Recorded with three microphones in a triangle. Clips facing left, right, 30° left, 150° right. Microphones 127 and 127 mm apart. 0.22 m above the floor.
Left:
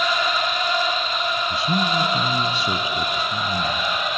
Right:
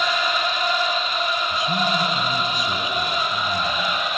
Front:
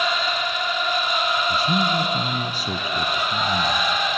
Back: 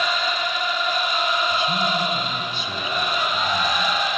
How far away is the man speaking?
About 1.8 m.